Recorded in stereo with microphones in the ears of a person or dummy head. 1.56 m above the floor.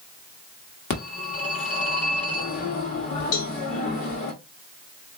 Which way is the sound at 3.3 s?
65° left (ahead or behind).